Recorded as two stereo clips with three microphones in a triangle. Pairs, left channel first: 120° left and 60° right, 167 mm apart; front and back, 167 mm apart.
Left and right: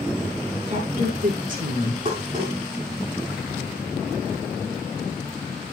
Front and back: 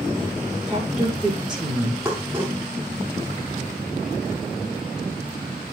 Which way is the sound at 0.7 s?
100° right.